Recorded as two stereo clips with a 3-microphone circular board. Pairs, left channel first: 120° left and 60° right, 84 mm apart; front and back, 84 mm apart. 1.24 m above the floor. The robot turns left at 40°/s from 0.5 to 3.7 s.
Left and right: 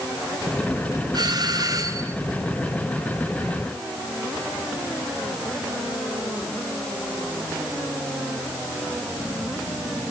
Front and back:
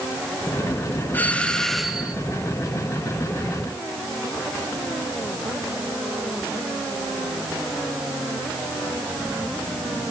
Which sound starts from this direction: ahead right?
A doorbell, at 1.1 s.